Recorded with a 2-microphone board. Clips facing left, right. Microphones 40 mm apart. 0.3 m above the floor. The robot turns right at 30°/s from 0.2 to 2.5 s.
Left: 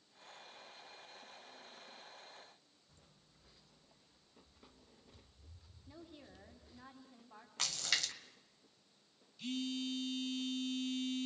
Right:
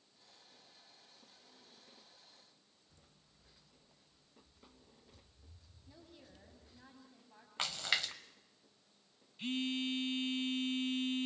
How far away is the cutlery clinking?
No cutlery clinking in this recording.